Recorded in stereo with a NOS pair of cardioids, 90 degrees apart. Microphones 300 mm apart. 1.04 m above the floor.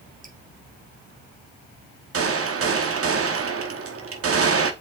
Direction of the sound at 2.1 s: 50° right.